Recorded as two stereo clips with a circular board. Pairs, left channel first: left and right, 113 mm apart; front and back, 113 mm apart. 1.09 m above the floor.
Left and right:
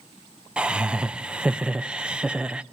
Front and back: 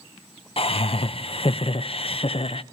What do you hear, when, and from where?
0.6 s laughter: 10° right, 0.6 m